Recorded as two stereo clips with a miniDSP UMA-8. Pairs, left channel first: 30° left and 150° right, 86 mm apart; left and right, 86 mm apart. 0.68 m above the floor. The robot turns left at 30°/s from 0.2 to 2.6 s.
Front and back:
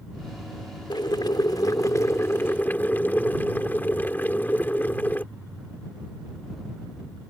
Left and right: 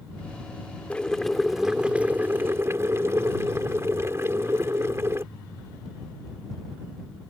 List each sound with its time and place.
0.9 s boiling: 15° left; by 5.2 s 35° right